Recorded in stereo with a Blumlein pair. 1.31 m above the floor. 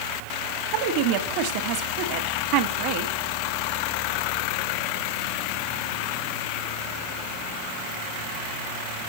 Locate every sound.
0.7 s a woman speaking: 45° right, 2 m